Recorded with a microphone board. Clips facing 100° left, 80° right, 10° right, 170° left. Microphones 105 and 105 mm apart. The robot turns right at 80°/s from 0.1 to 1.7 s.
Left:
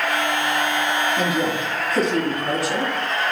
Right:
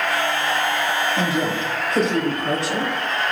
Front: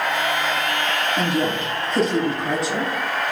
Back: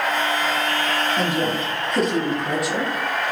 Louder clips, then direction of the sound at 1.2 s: Even, even; 85° right.